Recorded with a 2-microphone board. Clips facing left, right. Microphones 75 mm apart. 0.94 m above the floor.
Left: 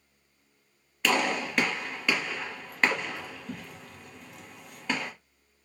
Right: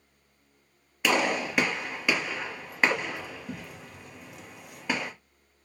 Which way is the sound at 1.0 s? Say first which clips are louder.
Right 1 dB; 10° right (ahead or behind).